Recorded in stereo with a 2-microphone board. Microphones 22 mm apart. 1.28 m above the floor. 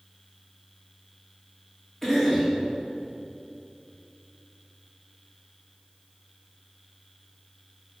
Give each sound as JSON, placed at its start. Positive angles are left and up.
{"t": 2.0, "sound": "a cough", "side_deg": 15, "distance_m": 3.5}